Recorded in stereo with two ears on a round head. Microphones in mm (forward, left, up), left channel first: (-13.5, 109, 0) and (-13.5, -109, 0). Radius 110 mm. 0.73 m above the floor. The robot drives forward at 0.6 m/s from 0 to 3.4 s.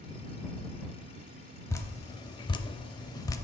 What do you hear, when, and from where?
1.7 s dripping: 10° left (ahead or behind), 0.8 m; by 3.4 s 15° left (ahead or behind), 0.6 m